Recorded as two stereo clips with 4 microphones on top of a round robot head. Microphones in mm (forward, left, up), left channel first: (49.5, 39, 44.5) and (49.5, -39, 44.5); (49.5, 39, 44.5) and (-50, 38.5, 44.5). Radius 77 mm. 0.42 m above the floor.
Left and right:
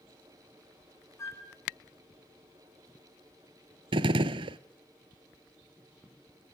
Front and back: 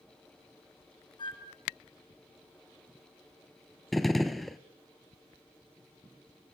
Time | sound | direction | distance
1.2 | a flute | 40° left | 4.5 m
3.9 | a gunshot | 90° right | 0.5 m